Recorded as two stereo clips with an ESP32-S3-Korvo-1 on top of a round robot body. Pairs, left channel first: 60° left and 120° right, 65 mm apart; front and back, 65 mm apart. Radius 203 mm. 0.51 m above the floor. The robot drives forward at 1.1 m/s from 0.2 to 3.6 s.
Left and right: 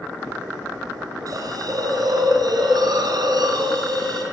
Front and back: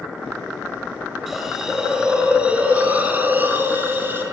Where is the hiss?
95° right, 5 m; by 4.2 s 120° right, 5.5 m.